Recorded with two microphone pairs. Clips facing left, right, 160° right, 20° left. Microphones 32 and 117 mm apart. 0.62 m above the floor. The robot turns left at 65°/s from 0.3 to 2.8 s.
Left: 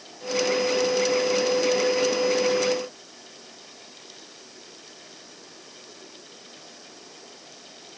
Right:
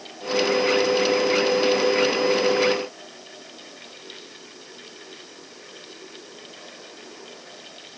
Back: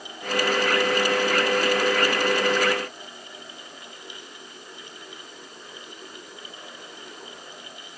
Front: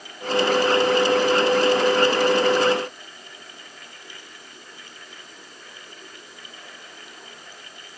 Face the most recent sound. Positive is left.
No sound to turn to.